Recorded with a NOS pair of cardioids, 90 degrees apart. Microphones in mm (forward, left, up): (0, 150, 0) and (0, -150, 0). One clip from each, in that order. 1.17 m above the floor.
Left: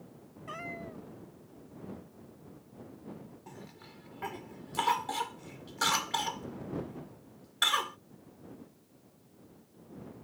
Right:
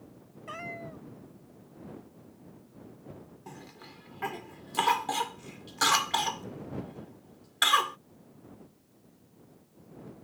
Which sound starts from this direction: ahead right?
A cough, at 3.5 s.